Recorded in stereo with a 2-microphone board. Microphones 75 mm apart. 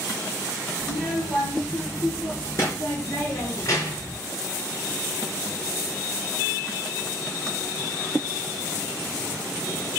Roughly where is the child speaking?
Left.